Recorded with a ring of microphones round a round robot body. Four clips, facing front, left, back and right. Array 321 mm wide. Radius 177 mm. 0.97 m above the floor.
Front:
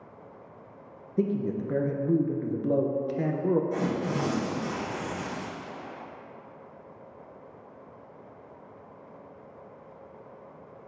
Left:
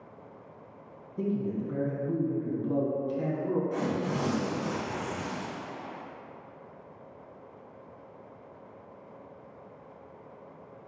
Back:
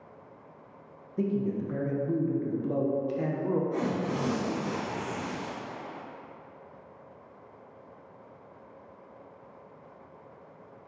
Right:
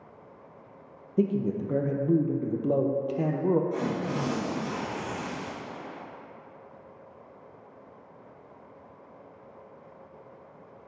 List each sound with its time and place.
1.2 s a man speaking: 60° right, 0.7 m
3.7 s tearing paper: 15° left, 1.5 m